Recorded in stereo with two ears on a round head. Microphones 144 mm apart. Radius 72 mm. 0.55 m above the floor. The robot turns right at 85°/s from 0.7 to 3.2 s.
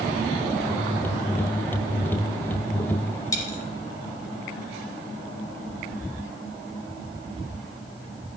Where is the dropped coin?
20° left (ahead or behind), 3.5 m.